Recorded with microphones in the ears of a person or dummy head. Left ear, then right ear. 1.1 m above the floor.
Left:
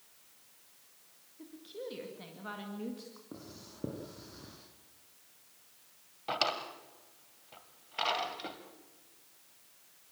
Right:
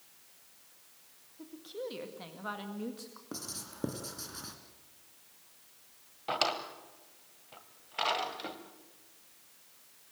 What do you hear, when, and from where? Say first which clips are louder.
1.4 s a woman speaking: right 3 dB; 30° right (ahead or behind), 1.8 m
3.3 s writing: right 7 dB; 60° right (ahead or behind), 2 m
6.3 s a drawer: right 1 dB; centre (ahead or behind), 1.7 m